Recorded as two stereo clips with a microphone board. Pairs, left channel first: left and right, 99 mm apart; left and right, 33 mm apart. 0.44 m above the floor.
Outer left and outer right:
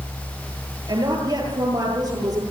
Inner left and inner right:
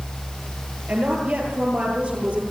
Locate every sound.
0.9 s a woman speaking: 45° right (ahead or behind), 10 m; by 2.4 s 40° right (ahead or behind), 11 m